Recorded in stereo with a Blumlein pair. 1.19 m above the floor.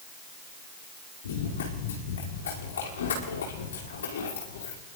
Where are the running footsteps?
60° left, 5.5 m.